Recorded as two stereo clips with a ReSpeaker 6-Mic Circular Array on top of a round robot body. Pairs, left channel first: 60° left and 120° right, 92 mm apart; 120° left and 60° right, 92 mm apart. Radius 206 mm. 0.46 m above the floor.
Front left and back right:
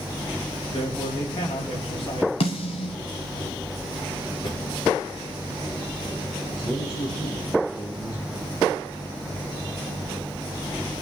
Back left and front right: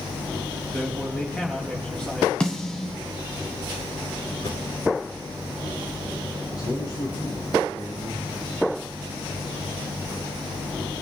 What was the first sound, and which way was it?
A man speaking, 40° left.